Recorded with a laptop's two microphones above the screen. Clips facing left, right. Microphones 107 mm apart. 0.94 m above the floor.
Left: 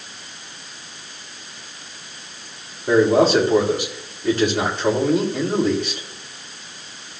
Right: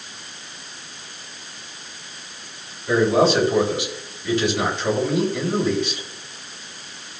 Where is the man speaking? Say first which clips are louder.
Left 2 dB; 50° left (ahead or behind), 4 m.